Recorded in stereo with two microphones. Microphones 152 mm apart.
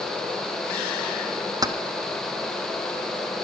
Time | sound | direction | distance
1.6 | keys jangling | 25° right (ahead or behind) | 0.9 m